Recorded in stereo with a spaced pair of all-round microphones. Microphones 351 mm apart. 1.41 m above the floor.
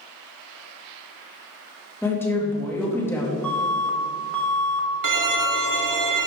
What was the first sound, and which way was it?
A woman speaking, 5° left (ahead or behind).